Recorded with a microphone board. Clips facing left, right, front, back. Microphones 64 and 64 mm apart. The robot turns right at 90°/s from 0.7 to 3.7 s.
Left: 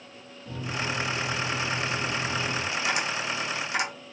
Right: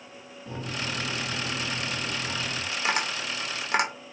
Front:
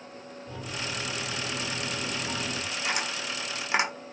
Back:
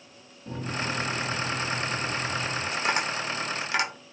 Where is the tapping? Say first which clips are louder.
Right 4 dB, back 5 dB; 150° right, 0.8 m; by 3.9 s 65° right, 0.8 m.